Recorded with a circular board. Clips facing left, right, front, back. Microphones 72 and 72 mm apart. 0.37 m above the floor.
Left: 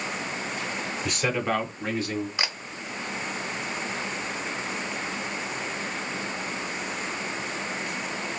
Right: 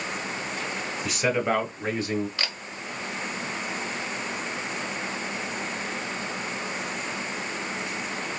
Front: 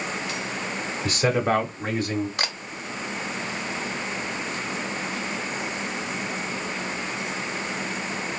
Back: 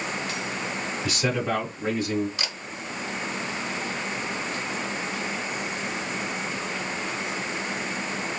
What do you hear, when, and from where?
1.1 s a man speaking: straight ahead, 1.1 m; by 2.3 s 25° right, 2.5 m
2.4 s a camera shutter: 20° left, 0.6 m